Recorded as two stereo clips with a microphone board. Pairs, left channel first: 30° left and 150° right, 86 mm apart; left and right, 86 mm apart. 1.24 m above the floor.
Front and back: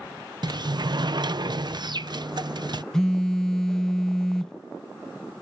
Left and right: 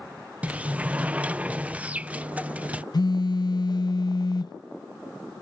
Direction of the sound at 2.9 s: 110° left.